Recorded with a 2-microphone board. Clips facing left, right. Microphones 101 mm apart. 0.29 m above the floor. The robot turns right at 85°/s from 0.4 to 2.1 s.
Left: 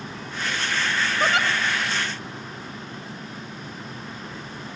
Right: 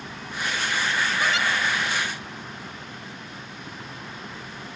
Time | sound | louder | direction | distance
1.2 | a giggle | left 5 dB | 35° left (ahead or behind) | 1.2 m